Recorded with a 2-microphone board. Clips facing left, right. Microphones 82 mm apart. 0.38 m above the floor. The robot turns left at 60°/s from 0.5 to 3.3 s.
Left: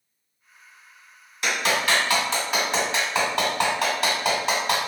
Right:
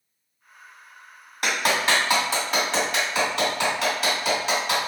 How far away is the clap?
About 1.8 m.